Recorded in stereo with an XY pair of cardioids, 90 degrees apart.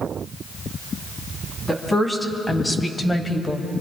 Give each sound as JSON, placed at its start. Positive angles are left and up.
{"t": 1.7, "sound": "a woman speaking", "azimuth_deg": 20, "distance_m": 3.0}